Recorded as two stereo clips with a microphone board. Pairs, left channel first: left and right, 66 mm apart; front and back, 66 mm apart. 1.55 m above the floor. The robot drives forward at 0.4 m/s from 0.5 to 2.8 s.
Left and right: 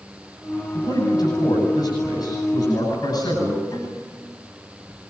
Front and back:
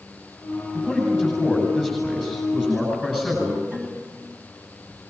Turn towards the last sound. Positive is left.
turn(degrees=105)